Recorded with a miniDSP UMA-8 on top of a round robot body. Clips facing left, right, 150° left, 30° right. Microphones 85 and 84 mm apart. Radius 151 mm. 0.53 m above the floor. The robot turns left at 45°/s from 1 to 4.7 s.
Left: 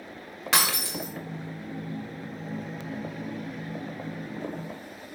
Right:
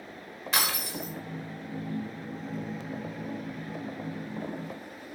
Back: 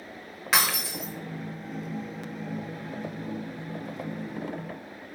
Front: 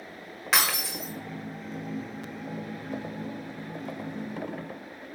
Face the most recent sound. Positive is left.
turn(degrees=-105)